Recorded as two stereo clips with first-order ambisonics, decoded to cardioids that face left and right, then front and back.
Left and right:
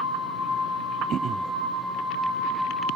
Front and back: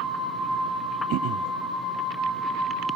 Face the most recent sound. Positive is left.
turn(degrees=-145)